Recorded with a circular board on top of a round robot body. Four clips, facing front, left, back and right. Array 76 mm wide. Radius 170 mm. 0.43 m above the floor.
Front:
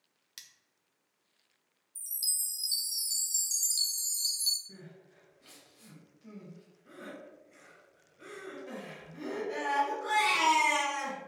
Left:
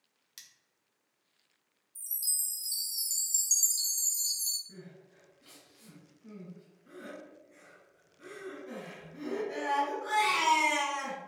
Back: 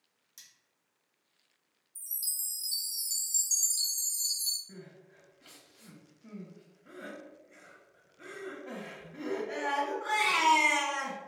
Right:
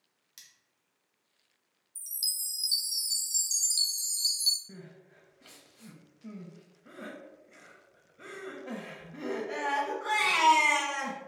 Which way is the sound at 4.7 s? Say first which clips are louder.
Right 1 dB, back 2 dB; 110° right.